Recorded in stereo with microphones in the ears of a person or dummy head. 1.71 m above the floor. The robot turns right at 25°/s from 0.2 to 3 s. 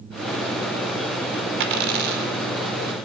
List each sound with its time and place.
1.6 s a dropped coin: 60° right (ahead or behind), 2.5 m; by 2.3 s 45° right (ahead or behind), 2.5 m